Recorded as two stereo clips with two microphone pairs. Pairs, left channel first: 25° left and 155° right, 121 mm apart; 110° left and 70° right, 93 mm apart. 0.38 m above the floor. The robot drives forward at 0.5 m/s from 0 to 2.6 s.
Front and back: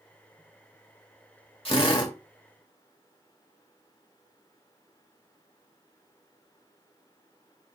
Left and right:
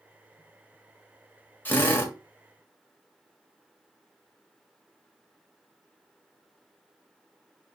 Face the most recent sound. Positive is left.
turn(degrees=70)